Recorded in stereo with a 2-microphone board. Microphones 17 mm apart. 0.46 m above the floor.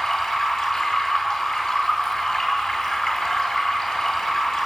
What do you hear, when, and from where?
0.0 s running water: 60° left (ahead or behind), 5 m